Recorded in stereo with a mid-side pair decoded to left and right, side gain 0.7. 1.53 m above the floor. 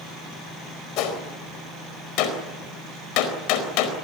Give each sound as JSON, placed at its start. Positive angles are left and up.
{"t": 1.0, "sound": "a gunshot", "azimuth_deg": 65, "distance_m": 4.0}